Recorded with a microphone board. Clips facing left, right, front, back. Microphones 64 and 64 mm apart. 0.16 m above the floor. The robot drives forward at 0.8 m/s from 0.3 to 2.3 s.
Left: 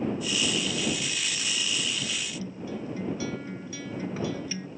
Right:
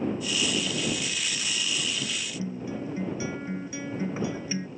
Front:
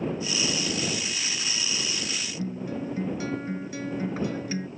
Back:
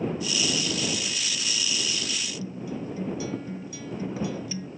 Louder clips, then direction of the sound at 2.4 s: Right 2 dB, front 6 dB; 25° right.